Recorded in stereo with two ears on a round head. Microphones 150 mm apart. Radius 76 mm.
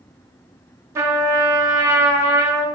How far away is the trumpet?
About 0.7 m.